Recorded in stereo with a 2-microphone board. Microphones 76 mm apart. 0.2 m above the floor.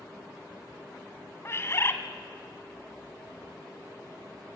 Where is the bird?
35° left (ahead or behind), 1.2 m.